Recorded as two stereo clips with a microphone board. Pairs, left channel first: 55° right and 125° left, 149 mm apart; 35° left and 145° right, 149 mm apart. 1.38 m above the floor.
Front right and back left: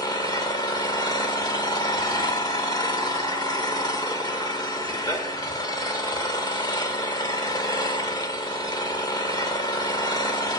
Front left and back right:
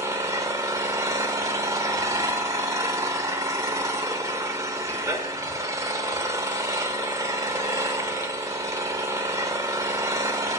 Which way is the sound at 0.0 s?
95° right.